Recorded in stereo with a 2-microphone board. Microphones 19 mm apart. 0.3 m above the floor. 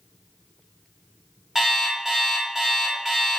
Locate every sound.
1.6 s an alarm clock: 15° right (ahead or behind), 0.8 m